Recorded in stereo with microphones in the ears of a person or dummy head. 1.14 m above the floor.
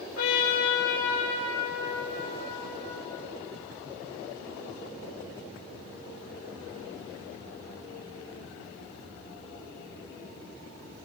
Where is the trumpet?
80° left, 4 m.